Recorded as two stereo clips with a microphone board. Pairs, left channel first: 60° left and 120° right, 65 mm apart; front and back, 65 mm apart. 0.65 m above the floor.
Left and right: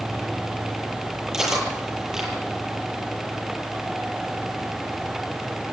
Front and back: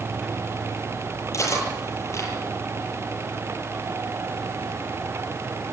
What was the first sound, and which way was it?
Cutlery clinking, 35° right.